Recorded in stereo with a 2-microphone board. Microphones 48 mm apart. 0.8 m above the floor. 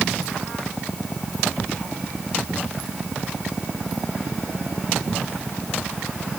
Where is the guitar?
I don't hear a guitar.